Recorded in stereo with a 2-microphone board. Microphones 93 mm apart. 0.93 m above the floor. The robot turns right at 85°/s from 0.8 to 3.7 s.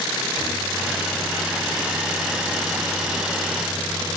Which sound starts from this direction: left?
A microwave, at 0.4 s.